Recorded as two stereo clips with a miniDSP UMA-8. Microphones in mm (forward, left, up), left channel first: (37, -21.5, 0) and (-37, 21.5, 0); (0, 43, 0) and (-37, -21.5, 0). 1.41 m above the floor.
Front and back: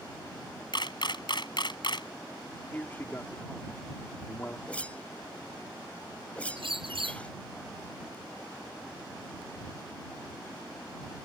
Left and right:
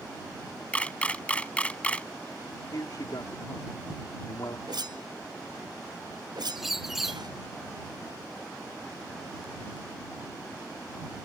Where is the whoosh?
105° right.